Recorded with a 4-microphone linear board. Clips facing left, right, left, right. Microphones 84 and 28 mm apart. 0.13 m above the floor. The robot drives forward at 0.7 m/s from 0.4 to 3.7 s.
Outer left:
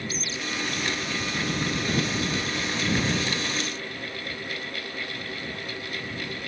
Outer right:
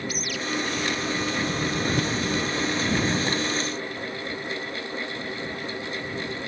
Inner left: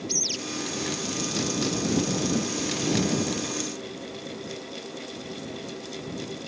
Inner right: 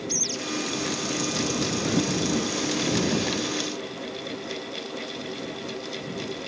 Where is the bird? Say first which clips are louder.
Outer right 2 dB, inner left 2 dB; 25° left (ahead or behind).